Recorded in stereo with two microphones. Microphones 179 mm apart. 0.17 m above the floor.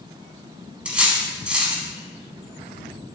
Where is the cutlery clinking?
5° right (ahead or behind), 0.6 m.